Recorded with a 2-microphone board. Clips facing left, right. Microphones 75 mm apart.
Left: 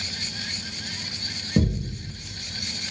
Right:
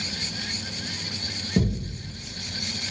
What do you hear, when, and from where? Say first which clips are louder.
1.6 s a thud: left 2 dB; 5° left (ahead or behind), 1.3 m